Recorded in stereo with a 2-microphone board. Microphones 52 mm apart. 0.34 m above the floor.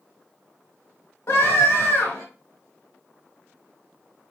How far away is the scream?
About 2.0 m.